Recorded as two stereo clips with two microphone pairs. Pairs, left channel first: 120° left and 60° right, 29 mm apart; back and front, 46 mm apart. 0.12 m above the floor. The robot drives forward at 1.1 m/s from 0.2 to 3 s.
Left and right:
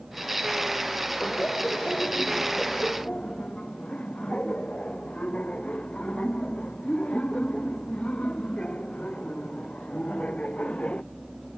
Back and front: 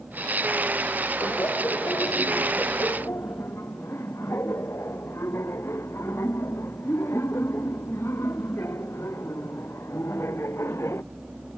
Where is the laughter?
160° left.